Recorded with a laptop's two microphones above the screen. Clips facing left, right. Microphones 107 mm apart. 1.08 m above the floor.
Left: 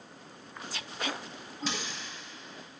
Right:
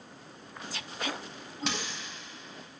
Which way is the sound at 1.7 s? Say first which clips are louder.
Right 1 dB; 65° right (ahead or behind).